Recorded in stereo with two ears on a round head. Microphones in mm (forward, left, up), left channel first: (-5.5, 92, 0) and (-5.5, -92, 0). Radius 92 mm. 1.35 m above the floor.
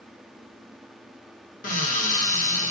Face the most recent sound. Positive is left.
turn(degrees=35)  # may be behind; listen again after turning